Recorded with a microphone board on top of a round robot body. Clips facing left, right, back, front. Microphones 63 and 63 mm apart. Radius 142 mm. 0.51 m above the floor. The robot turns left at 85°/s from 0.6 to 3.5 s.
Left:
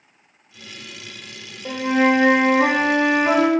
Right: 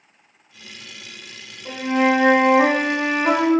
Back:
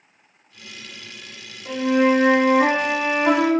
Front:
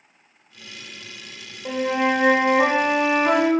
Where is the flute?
35° left, 0.7 m; by 3.5 s 125° right, 0.7 m.